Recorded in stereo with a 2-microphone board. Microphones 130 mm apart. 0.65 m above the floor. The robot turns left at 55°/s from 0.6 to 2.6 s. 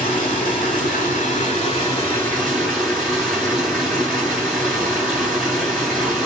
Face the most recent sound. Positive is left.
turn(degrees=-5)